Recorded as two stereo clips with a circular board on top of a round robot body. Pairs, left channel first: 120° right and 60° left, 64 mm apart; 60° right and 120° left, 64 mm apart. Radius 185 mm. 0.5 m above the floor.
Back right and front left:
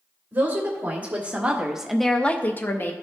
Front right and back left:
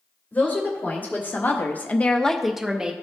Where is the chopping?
I don't hear chopping.